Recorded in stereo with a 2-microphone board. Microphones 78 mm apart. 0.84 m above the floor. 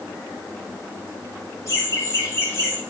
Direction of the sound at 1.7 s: 35° left (ahead or behind).